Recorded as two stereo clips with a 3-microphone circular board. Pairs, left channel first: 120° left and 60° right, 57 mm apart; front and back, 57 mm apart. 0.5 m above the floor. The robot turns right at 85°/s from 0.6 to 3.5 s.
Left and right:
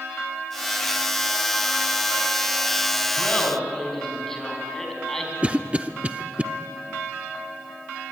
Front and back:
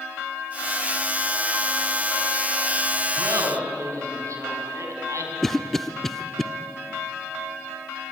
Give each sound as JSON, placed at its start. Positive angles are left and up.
{"t": 3.2, "sound": "laughter", "azimuth_deg": 175, "distance_m": 5.0}
{"t": 5.4, "sound": "a cough", "azimuth_deg": -80, "distance_m": 0.7}